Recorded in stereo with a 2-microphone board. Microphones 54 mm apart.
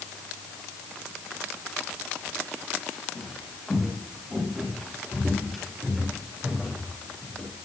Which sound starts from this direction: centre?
Footsteps, at 3.1 s.